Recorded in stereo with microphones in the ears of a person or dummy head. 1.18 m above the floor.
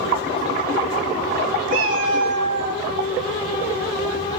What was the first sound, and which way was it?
A cat meowing, 55° right (ahead or behind).